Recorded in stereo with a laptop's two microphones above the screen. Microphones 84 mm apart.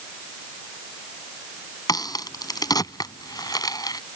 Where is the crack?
55° left (ahead or behind).